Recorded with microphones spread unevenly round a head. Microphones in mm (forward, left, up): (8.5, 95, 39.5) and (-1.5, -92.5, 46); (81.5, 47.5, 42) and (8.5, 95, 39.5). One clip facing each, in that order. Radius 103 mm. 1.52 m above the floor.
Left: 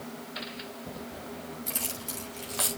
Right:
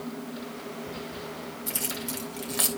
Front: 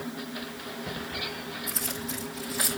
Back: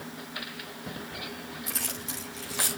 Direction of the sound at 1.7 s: Straight behind.